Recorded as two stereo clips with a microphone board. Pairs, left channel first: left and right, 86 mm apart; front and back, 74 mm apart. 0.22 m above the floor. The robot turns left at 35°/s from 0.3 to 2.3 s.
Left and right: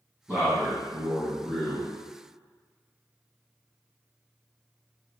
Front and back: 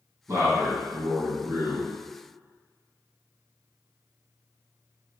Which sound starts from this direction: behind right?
A man speaking, at 0.3 s.